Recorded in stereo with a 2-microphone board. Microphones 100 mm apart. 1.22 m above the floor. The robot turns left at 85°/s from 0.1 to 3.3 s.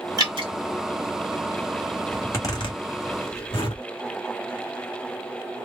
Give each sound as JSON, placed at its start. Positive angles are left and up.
{"t": 0.2, "sound": "dripping", "side_deg": -40, "distance_m": 1.5}
{"t": 2.1, "sound": "a zipper", "side_deg": 10, "distance_m": 1.5}